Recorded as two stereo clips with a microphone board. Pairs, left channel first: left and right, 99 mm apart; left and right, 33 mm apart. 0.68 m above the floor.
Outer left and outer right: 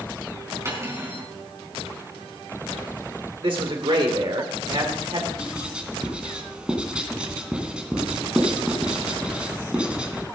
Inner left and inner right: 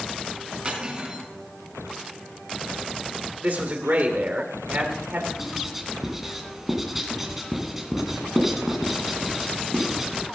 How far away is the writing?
About 2 m.